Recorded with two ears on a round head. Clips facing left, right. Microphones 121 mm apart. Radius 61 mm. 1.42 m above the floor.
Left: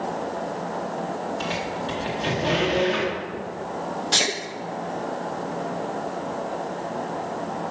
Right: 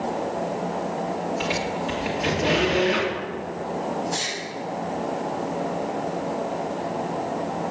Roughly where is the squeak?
Centre.